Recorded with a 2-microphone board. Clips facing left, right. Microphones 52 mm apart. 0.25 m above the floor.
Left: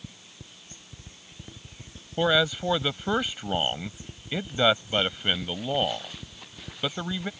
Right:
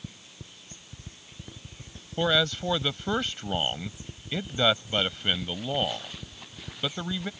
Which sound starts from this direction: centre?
A man speaking, at 2.2 s.